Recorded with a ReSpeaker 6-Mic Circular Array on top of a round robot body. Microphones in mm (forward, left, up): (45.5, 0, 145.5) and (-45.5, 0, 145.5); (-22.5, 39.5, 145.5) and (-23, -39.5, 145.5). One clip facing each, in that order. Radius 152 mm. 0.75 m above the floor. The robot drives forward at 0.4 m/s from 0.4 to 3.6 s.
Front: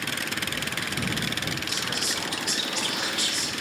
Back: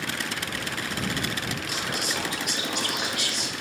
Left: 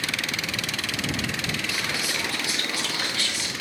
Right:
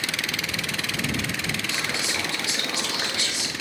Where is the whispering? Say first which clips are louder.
Back 2 dB, right 1 dB; 150° right, 1.7 m; by 3.5 s 160° right, 2.5 m.